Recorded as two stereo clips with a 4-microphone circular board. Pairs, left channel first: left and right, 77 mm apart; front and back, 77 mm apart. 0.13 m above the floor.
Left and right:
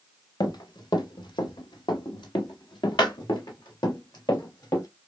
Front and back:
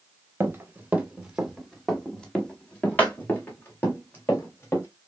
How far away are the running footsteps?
About 1.4 m.